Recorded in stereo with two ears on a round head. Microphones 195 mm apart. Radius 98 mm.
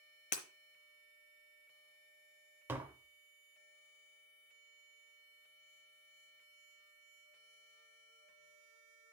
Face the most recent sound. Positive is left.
turn(degrees=-10)  # may be behind; listen again after turning